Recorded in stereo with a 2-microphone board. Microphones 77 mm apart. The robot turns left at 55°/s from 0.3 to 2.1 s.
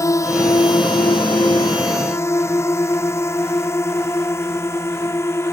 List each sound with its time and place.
0.0 s a drone: 40° left (ahead or behind); by 5.5 s 35° left (ahead or behind)